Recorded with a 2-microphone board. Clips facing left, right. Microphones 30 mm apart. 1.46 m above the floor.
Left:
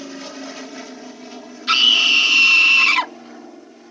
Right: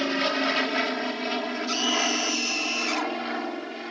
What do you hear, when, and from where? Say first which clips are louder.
0.0 s an aircraft: right 8 dB; 50° right (ahead or behind); by 3.9 s 60° right (ahead or behind)
1.7 s a scream: left 13 dB; 70° left (ahead or behind)